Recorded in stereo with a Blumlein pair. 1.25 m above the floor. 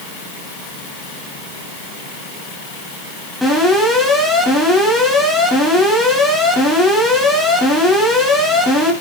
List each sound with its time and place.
3.4 s an alarm: straight ahead, 8 m